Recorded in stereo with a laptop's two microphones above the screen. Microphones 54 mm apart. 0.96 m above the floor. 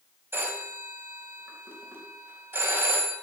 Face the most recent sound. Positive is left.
turn(degrees=-45)  # may be behind; listen again after turning